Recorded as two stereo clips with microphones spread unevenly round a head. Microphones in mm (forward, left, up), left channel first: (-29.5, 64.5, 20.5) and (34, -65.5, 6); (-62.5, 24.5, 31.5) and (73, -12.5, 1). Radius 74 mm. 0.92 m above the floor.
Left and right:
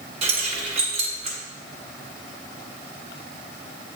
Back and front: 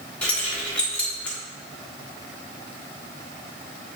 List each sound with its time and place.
0.2 s keys jangling: 110° right, 1.5 m